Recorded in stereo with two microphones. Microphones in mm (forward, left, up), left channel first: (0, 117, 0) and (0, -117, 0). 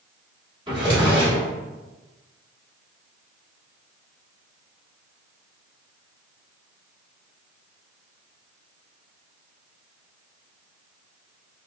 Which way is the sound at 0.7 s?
20° right (ahead or behind).